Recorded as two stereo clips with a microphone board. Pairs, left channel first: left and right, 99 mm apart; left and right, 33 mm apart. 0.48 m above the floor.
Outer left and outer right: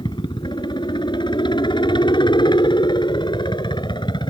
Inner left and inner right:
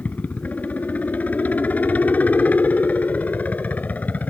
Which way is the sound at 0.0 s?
50° left (ahead or behind).